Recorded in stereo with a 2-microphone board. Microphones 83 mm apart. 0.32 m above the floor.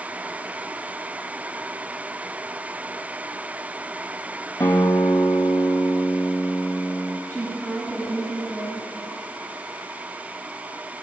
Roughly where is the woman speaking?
Right.